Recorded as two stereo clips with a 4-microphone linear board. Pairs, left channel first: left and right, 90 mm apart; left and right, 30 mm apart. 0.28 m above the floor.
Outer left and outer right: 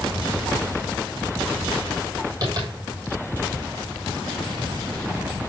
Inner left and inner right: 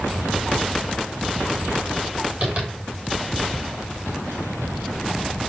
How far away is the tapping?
About 7 m.